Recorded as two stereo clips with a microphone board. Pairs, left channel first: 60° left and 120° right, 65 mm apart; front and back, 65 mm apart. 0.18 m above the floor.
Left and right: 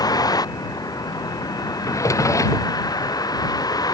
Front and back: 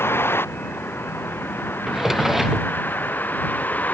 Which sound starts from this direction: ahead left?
A vehicle, at 0.0 s.